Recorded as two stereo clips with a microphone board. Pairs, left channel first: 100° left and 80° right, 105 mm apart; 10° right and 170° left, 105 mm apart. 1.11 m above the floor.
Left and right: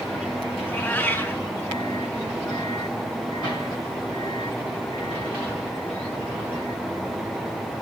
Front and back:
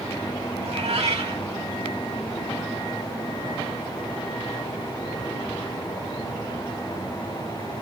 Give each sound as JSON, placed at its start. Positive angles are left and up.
{"t": 0.6, "sound": "a cat meowing", "azimuth_deg": 170, "distance_m": 2.5}